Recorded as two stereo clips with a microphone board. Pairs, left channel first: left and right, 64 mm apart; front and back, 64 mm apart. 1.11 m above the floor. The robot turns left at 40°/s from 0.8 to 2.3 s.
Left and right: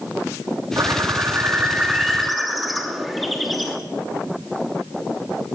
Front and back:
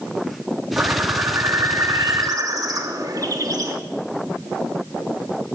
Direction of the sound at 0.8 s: 120° right.